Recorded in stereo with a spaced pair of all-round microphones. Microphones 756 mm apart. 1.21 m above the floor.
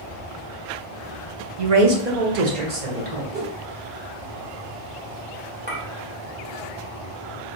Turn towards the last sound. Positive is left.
turn(degrees=-10)  # may be behind; listen again after turning